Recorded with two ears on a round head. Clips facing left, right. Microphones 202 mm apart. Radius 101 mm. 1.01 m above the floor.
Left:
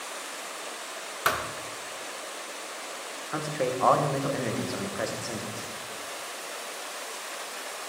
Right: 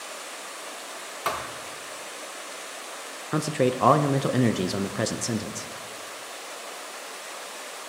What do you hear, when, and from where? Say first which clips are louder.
1.2 s a thud: left 1 dB; 20° left (ahead or behind), 0.8 m
3.3 s a man speaking: right 6 dB; 45° right (ahead or behind), 0.6 m